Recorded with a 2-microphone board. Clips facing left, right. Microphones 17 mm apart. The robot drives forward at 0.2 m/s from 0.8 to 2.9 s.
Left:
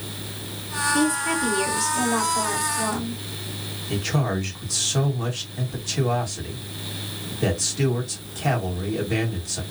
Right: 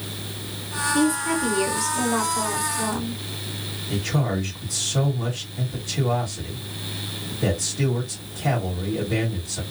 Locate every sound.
0.9 s a woman speaking: 30° left (ahead or behind), 1.6 m; by 3.2 s 25° left (ahead or behind), 1.9 m
3.9 s a man speaking: 45° left (ahead or behind), 1.8 m